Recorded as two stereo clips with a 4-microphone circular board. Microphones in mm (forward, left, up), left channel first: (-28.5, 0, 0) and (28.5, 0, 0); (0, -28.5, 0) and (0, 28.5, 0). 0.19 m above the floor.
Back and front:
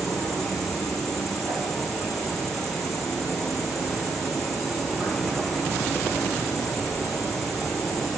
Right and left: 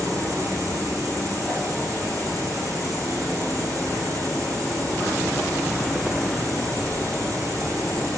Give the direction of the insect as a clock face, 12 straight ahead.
9 o'clock.